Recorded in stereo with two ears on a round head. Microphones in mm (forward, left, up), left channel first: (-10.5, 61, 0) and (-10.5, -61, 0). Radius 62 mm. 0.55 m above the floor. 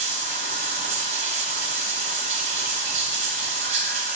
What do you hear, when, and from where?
0.0 s running water: 60° right (ahead or behind), 1.4 m